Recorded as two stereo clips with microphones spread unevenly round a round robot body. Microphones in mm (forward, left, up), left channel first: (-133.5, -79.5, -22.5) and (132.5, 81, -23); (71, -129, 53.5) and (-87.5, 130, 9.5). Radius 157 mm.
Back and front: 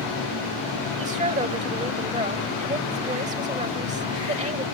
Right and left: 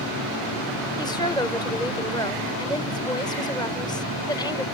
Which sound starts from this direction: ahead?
A woman speaking, at 1.0 s.